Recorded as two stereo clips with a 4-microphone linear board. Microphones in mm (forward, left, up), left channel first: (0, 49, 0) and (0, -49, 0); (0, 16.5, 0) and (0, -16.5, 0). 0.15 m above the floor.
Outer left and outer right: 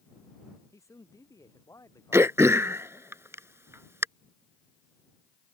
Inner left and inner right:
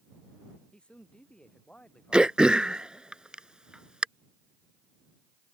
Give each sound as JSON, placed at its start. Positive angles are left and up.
{"t": 0.7, "sound": "a man speaking", "side_deg": 30}
{"t": 2.1, "sound": "throat clearing", "side_deg": -30}